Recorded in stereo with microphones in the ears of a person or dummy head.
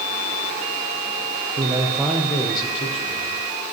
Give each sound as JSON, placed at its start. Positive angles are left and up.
{"t": 1.6, "sound": "a man speaking", "side_deg": -25, "distance_m": 0.8}